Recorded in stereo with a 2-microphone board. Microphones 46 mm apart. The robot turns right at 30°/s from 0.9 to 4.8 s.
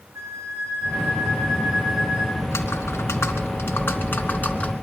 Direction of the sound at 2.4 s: 85° left.